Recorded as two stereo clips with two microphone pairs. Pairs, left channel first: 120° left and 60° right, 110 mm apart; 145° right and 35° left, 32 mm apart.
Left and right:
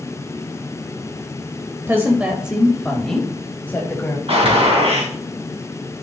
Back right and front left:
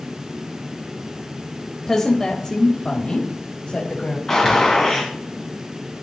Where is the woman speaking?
85° right, 1.2 m; by 4.2 s straight behind, 1.8 m.